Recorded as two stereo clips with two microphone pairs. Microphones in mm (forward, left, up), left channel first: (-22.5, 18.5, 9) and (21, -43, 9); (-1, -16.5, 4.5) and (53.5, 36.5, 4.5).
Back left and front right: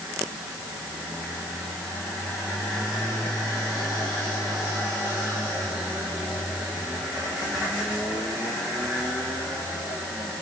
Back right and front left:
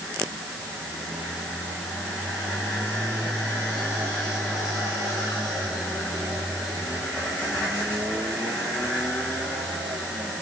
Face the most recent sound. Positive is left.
No sound to turn to.